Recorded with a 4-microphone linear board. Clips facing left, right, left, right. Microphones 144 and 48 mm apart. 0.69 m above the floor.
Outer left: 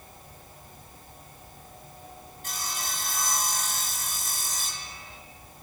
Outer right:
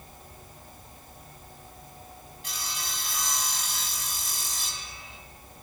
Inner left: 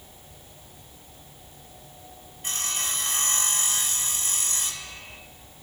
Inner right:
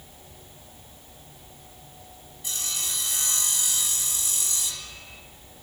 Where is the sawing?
50° left (ahead or behind), 2.5 m.